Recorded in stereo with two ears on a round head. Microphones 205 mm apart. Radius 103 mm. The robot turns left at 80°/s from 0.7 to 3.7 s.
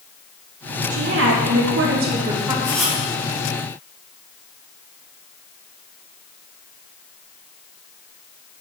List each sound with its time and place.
0.9 s a woman speaking: 40° right, 1.2 m; by 2.5 s 170° right, 1.2 m
2.6 s writing: 15° left, 1.5 m; by 3.0 s 20° right, 1.5 m